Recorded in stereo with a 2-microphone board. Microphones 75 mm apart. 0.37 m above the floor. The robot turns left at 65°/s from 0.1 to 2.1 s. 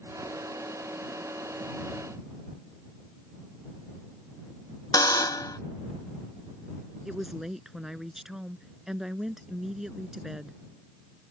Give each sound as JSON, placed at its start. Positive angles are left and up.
{"t": 4.9, "sound": "a buzzer", "side_deg": 55}
{"t": 7.0, "sound": "a woman speaking", "side_deg": -5}